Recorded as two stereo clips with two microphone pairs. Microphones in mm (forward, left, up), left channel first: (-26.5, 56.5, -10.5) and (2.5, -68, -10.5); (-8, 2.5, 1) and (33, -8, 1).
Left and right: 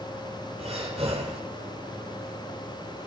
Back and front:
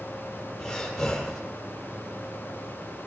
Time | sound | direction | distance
0.6 | breathing | 115° right | 6.5 m